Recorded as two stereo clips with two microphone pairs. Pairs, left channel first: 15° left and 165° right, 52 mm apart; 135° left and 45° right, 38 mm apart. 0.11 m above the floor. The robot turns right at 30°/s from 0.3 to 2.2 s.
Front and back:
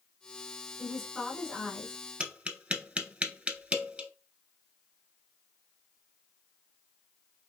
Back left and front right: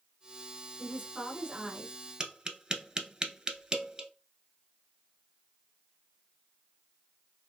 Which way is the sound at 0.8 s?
55° right.